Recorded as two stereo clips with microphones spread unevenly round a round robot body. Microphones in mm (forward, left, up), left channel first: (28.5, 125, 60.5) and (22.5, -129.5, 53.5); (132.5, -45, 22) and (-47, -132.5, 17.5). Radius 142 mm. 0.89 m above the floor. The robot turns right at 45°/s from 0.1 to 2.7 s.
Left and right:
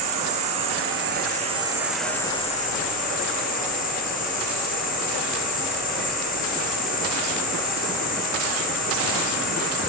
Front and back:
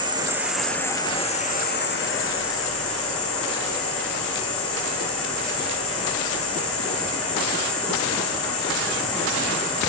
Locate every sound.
0.0 s an insect: 85° right, 3.5 m; by 9.9 s 30° left, 3.5 m